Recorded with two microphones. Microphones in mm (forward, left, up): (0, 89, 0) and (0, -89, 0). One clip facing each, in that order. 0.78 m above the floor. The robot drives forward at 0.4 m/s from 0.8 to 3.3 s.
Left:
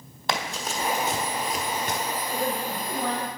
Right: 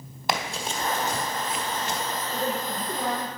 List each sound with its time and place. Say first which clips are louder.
0.3 s running footsteps: right 1 dB; 5° right (ahead or behind), 1.4 m; by 2.0 s 55° left (ahead or behind), 1.2 m
2.3 s a woman speaking: even; centre (ahead or behind), 1.1 m